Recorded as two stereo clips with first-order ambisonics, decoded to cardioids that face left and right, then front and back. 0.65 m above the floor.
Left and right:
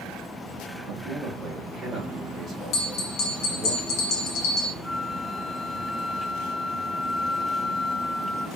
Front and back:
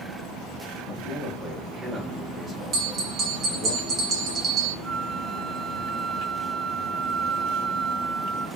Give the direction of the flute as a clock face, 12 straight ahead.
6 o'clock.